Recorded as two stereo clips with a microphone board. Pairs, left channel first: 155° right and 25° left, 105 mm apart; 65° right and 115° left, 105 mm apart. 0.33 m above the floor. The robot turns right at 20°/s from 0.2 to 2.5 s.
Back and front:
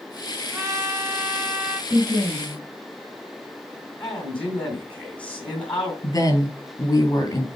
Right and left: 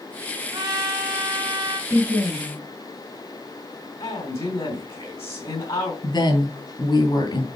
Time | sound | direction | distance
0.5 | a trumpet | 65° left | 1.6 m
1.9 | a woman speaking | 35° right | 2 m
4.0 | a man speaking | 80° right | 3 m
6.0 | a woman speaking | 105° right | 3.5 m